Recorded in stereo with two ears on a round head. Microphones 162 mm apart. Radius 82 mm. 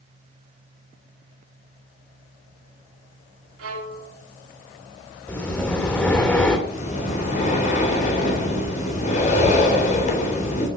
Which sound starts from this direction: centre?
Breathing, at 5.3 s.